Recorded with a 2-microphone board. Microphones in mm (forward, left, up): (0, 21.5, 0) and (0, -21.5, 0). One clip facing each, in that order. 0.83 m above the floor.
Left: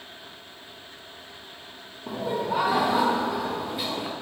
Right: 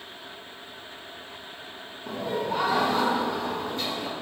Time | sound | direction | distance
2.1 | laughter | 10° left (ahead or behind) | 0.7 m